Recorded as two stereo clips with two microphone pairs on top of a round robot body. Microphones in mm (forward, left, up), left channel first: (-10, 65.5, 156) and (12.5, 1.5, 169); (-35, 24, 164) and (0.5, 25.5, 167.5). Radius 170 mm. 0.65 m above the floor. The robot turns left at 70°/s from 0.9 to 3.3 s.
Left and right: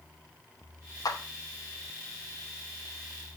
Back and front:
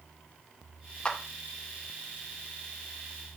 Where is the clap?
115° left, 3 m; by 1.2 s 105° left, 3 m.